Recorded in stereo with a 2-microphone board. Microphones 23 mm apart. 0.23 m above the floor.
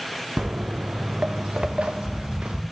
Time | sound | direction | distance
0.4 | footsteps | 80° right | 1.1 m